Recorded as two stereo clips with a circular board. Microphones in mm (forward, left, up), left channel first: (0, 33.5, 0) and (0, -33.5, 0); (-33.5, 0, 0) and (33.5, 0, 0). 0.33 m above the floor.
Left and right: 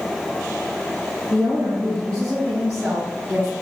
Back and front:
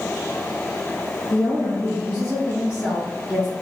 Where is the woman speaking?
105° right, 1.3 m; by 3.5 s 130° right, 2.5 m.